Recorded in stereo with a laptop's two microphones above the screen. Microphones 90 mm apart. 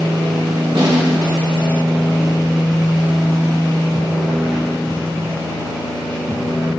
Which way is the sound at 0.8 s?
80° right.